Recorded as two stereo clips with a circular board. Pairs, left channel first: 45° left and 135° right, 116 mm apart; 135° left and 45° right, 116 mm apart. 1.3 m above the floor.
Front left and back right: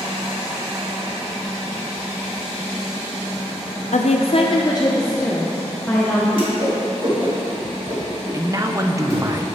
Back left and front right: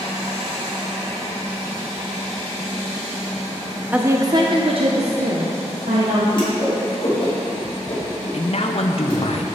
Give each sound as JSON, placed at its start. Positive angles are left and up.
{"t": 3.9, "sound": "a woman speaking", "azimuth_deg": 35, "distance_m": 0.5}
{"t": 6.3, "sound": "a whoosh", "azimuth_deg": 180, "distance_m": 2.5}
{"t": 8.3, "sound": "a man speaking", "azimuth_deg": 165, "distance_m": 0.7}